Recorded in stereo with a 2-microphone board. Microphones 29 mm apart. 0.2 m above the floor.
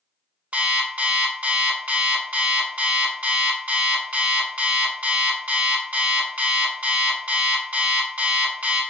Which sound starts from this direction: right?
An alarm clock, at 0.5 s.